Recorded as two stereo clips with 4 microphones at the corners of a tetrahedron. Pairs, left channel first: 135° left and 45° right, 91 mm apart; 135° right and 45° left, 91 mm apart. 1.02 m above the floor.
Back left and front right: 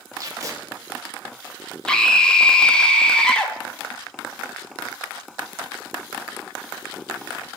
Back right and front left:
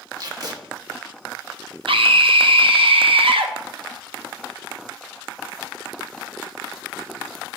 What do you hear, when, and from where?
0.2 s tape being pulled: 5° left, 0.7 m
1.9 s a scream: 55° left, 0.5 m